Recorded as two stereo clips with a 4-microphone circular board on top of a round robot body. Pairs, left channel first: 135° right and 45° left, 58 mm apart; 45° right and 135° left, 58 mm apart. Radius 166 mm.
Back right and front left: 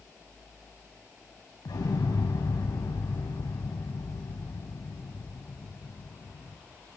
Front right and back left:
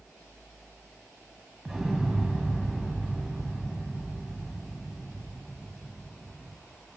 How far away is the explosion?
About 3 m.